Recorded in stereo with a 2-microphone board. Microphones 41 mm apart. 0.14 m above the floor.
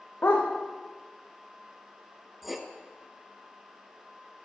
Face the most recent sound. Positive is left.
turn(degrees=-5)  # may be behind; listen again after turning